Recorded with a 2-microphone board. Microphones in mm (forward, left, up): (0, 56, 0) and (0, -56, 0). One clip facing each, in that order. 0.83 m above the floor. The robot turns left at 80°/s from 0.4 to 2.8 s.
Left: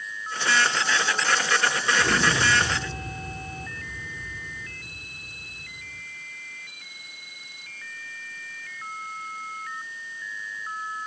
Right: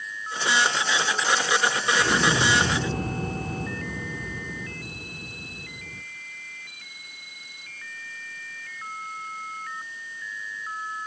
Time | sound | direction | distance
2.0 | an explosion | 10° left | 0.7 m